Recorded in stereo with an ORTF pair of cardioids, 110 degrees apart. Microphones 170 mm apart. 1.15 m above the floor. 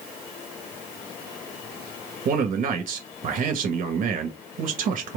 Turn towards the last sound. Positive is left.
turn(degrees=-55)